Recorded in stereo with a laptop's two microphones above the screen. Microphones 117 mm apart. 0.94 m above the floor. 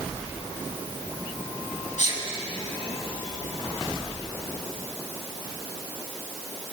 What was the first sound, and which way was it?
A sneeze, 85° left.